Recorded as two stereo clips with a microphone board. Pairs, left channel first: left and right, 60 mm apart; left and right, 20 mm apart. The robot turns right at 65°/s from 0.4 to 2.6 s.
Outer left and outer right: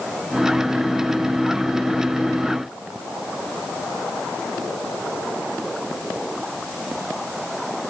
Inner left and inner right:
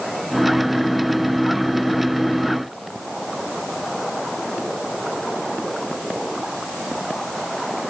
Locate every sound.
Only background noise.